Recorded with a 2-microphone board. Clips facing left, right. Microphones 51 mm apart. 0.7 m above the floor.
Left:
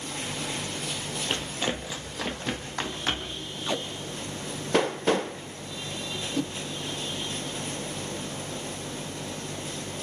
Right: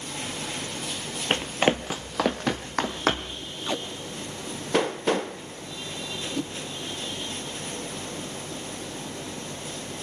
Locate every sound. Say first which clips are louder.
1.3 s running footsteps: right 8 dB; 40° right (ahead or behind), 1.1 m; by 3.4 s 75° right (ahead or behind), 3 m
3.7 s tape being pulled: even; centre (ahead or behind), 1.1 m